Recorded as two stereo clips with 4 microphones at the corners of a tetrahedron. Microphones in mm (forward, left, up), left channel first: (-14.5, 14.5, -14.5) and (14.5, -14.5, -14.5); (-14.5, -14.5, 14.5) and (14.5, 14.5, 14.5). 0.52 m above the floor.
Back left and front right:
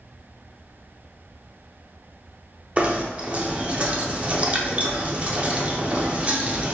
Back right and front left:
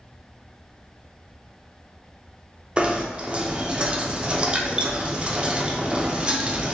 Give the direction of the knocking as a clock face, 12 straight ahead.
12 o'clock.